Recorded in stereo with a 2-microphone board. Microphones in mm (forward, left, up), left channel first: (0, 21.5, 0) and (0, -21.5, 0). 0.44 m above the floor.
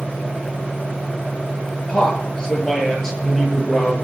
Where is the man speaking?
20° left (ahead or behind), 7.5 m; by 3.9 s 5° left (ahead or behind), 8 m.